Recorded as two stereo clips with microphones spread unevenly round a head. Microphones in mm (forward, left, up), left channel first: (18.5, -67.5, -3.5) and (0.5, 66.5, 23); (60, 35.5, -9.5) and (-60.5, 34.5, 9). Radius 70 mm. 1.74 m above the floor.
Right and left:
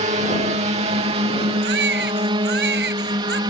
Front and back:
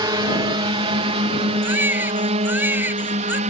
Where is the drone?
135° left; by 3.5 s 160° left.